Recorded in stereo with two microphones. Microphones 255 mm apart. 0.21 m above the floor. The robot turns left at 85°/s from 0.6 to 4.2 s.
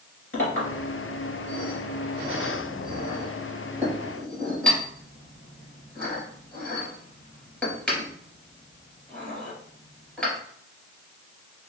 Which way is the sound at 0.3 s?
55° left (ahead or behind).